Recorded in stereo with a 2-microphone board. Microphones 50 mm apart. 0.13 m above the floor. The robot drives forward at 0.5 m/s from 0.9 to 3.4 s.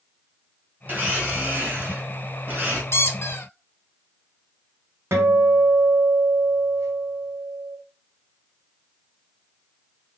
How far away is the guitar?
About 0.9 m.